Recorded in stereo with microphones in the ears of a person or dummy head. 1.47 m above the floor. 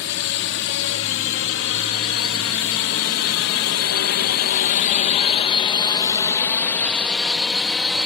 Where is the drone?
75° left (ahead or behind); by 8.1 s 5° right (ahead or behind).